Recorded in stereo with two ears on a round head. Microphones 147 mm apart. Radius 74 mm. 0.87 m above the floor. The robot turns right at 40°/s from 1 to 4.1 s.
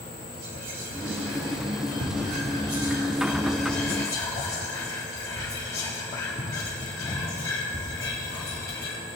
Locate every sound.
0.4 s whispering: 70° right (ahead or behind), 1.5 m; by 9.0 s 20° left (ahead or behind), 1.5 m